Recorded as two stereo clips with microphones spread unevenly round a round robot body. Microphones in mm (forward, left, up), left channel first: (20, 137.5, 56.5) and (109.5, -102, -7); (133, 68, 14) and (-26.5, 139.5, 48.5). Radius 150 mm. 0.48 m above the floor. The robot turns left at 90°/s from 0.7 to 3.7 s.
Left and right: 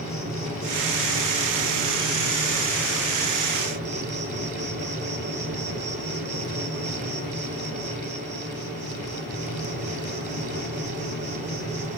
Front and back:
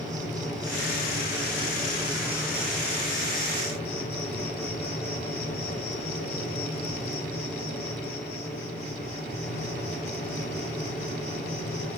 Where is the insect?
145° right, 2.5 m; by 12.0 s 55° right, 2.5 m.